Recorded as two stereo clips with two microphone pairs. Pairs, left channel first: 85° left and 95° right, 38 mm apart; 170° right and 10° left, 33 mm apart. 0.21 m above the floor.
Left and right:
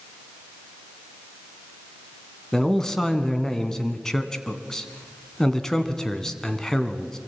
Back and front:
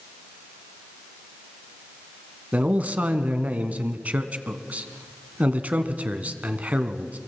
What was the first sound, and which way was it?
A man speaking, 10° left.